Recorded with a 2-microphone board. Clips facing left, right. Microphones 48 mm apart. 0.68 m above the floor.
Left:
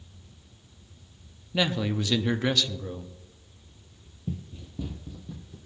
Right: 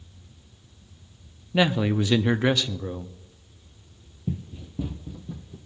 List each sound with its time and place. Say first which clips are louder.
1.5 s a man speaking: right 5 dB; 20° right (ahead or behind), 0.6 m
4.3 s running footsteps: right 4 dB; 15° right (ahead or behind), 0.7 m